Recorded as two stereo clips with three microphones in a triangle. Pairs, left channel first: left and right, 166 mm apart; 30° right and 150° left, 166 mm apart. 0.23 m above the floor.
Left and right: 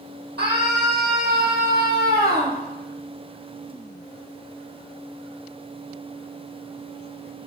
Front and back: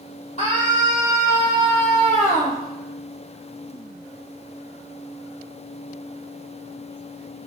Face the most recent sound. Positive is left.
turn(degrees=-70)